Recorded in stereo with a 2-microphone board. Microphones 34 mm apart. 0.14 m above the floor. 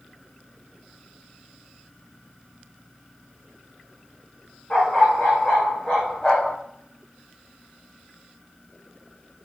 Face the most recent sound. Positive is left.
turn(degrees=30)  # may be behind; listen again after turning